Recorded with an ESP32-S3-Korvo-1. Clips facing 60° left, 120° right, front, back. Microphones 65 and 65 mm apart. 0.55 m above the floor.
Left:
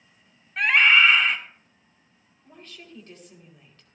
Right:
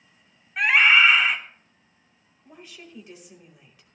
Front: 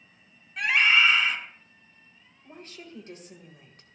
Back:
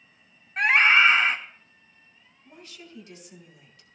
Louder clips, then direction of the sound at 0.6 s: Right 1 dB, back 3 dB; 160° left.